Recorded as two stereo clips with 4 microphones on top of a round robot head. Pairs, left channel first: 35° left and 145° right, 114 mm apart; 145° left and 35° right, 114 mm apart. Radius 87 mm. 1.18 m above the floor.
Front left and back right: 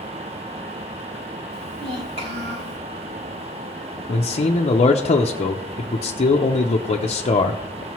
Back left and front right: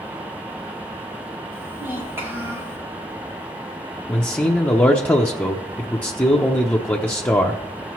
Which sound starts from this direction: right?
A child speaking, at 1.5 s.